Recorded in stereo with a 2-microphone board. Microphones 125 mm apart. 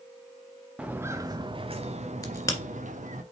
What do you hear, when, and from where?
0.8 s footsteps: 10° right (ahead or behind), 0.9 m; by 3.2 s 90° right, 1.6 m
2.2 s a crack: 25° left (ahead or behind), 1.8 m